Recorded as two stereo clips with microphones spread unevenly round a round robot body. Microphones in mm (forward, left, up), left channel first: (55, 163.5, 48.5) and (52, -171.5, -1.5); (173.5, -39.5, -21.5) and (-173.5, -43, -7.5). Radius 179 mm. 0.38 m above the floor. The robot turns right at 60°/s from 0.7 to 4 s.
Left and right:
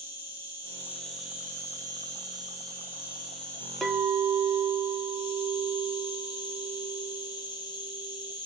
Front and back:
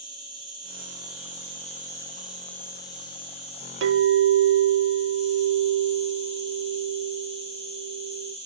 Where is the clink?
170° right, 0.5 m; by 8.3 s 155° right, 0.5 m.